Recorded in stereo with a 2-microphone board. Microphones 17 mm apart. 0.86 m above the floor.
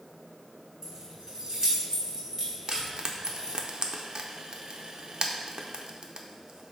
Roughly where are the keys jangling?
Right.